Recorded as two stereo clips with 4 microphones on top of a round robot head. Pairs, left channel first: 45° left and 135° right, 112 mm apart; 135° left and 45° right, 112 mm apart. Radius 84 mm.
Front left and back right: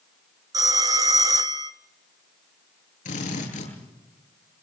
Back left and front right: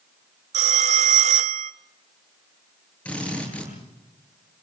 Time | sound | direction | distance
0.5 | a phone ringing | 70° right | 1.3 m
3.0 | a drill | 55° left | 9.5 m